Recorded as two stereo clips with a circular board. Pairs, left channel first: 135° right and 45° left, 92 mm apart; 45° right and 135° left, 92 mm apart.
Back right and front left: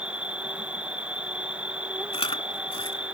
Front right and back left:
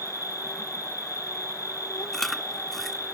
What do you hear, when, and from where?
0.0 s an insect: 25° right
2.1 s chewing: 130° right